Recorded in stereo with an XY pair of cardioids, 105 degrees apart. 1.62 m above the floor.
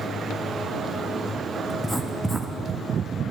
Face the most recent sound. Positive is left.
turn(degrees=0)